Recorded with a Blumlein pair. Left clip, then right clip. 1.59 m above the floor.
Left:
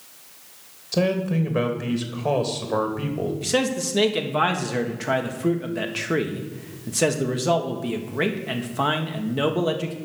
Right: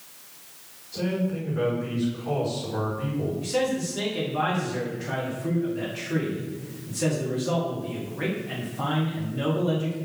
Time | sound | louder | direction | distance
0.9 | a man speaking | left 6 dB | 50° left | 2.5 m
3.4 | a man speaking | left 3 dB | 60° left | 1.6 m